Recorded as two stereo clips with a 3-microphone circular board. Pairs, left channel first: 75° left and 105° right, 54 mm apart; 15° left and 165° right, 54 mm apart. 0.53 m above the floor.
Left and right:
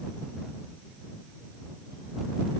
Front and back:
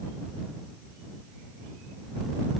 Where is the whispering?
I don't hear whispering.